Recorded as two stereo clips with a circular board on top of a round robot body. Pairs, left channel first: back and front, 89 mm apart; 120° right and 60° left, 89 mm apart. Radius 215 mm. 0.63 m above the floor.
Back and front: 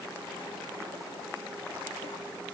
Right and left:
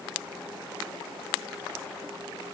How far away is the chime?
I don't hear a chime.